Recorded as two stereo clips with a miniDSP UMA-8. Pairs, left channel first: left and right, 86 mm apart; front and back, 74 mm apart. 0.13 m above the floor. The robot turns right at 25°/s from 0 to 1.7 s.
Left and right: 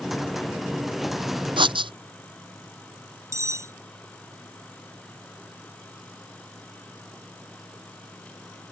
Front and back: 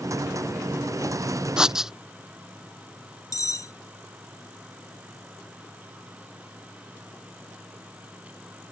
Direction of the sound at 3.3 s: 40° right.